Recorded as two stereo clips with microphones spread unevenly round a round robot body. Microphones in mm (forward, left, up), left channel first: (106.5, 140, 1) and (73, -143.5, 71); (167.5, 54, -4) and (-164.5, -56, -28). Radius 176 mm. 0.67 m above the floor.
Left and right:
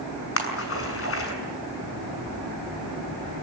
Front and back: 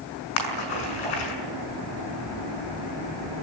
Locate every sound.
0.4 s a splash: 40° left, 6 m